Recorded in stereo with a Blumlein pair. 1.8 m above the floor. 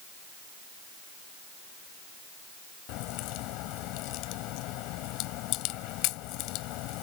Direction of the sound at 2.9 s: 40° left.